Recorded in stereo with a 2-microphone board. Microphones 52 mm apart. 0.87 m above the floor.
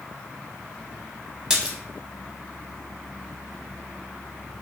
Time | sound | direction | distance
1.5 | a splash | 15° right (ahead or behind) | 0.6 m